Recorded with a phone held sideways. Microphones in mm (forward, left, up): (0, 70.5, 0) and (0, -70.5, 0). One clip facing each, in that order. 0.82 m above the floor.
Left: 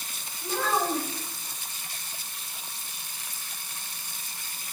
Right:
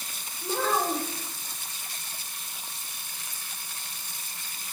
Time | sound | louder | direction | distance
0.4 | a child speaking | even | 30° right (ahead or behind) | 2.5 m